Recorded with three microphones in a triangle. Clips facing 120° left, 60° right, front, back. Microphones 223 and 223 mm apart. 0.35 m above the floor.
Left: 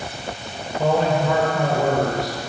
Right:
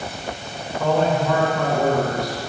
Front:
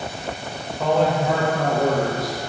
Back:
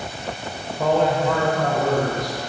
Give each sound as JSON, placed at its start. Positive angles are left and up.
{"t": 0.8, "sound": "a man speaking", "azimuth_deg": 125, "distance_m": 1.4}